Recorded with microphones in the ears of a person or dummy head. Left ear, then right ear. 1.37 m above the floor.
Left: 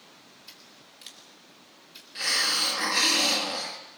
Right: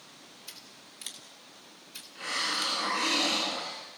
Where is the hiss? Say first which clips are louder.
Left 6 dB; 70° left (ahead or behind), 4 m.